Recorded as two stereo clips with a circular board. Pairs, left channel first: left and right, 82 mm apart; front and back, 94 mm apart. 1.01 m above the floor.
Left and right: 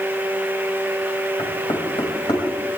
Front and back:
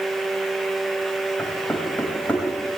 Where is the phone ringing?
No phone ringing in this recording.